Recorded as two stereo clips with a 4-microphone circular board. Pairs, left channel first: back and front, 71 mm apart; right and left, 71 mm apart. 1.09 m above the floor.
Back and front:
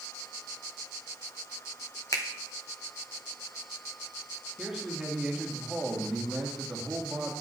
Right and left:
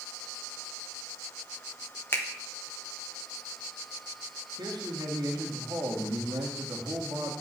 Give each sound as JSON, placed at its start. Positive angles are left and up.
{"t": 2.1, "sound": "a finger snap", "azimuth_deg": -145, "distance_m": 1.0}
{"t": 4.6, "sound": "a man speaking", "azimuth_deg": 80, "distance_m": 2.0}